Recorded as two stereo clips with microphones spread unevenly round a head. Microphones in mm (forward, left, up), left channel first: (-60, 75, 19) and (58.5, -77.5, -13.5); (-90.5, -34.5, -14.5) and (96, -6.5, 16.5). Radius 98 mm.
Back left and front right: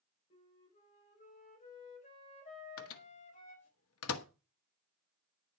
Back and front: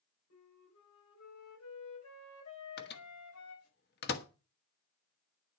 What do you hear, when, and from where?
0.3 s a flute: 175° right, 4.5 m
2.8 s a microwave: 145° left, 1.2 m